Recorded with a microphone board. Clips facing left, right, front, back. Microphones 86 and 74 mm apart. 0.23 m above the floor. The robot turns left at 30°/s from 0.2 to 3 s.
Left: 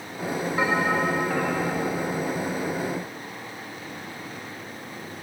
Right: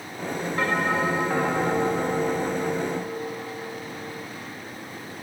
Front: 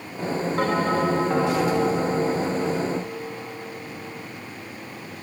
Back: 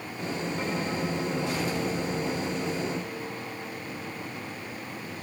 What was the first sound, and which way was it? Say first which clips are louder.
A bell: even, front 11 dB; 10° left.